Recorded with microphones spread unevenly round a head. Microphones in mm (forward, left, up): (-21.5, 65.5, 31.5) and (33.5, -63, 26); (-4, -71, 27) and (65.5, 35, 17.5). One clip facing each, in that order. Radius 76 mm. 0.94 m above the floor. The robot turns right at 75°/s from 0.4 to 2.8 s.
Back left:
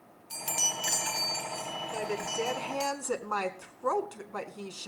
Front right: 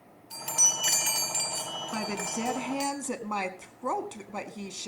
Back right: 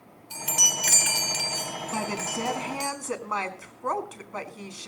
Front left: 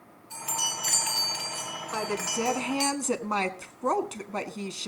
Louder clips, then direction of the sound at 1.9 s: Even, front left 1 dB; 65° right.